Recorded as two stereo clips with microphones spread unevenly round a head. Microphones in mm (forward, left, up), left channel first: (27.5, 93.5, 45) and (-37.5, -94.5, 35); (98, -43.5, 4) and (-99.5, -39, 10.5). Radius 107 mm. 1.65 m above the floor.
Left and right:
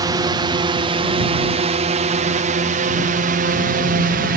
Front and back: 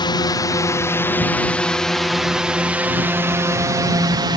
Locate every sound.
0.0 s a drone: 55° right; by 4.4 s 120° right